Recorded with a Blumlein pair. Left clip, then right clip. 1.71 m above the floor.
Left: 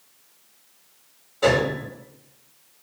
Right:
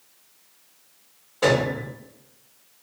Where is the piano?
15° right, 1.3 m.